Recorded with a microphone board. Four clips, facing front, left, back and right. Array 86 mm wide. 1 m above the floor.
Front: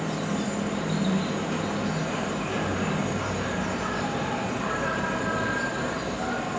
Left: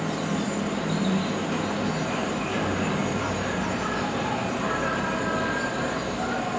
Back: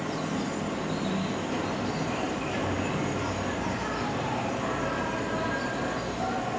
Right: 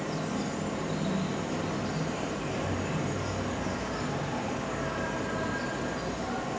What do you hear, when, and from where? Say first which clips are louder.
0.0 s an insect: left 5 dB, front 2 dB; 65° left, 7 m